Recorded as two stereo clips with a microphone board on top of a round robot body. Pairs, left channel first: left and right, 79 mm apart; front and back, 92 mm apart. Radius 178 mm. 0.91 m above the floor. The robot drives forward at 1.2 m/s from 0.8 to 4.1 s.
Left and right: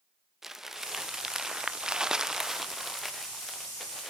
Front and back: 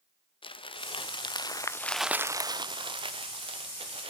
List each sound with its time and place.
0.4 s crumpling: 5° right, 1.6 m; by 4.1 s straight behind, 2.5 m